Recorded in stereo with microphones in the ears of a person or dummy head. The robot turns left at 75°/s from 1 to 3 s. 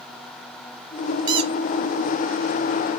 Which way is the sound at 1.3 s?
20° right (ahead or behind).